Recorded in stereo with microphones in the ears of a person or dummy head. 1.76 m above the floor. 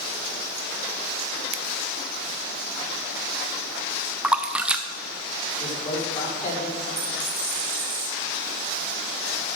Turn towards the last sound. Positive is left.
turn(degrees=-10)  # may be behind; listen again after turning